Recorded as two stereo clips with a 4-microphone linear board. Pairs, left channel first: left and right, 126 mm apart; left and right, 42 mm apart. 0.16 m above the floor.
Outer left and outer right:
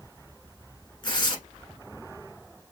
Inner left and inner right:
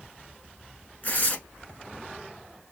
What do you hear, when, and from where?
1.0 s tearing paper: 40° left (ahead or behind), 0.8 m